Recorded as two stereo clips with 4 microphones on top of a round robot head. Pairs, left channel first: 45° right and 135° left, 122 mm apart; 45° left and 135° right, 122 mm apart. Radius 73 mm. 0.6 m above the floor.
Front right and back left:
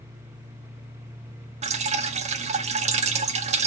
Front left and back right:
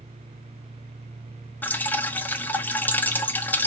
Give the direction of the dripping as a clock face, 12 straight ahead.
8 o'clock.